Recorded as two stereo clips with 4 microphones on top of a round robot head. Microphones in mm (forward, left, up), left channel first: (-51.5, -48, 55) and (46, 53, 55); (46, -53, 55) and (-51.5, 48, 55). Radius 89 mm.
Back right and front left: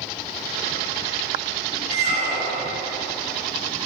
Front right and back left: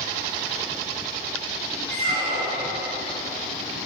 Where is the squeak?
80° left, 1.2 m.